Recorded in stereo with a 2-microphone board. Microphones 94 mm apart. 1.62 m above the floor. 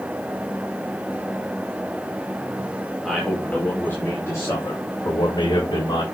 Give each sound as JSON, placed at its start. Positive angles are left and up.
{"t": 3.0, "sound": "a man speaking", "side_deg": 0, "distance_m": 2.5}